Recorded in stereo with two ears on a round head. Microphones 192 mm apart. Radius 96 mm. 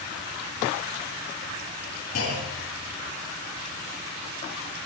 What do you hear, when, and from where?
2.1 s a clunk: 75° left (ahead or behind), 6 m